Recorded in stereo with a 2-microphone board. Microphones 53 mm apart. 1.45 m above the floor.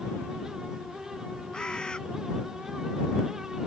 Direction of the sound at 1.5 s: 15° left (ahead or behind).